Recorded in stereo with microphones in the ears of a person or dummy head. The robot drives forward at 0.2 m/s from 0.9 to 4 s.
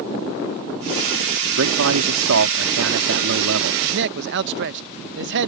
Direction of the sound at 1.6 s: 80° right.